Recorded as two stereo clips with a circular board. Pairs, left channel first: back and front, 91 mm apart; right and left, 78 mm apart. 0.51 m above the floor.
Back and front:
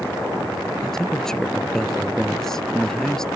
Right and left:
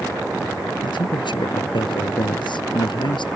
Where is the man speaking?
95° right.